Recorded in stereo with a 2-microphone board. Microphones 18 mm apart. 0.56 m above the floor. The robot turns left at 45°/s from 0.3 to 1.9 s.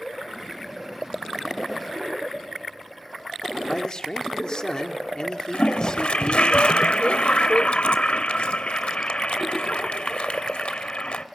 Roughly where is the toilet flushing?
Left.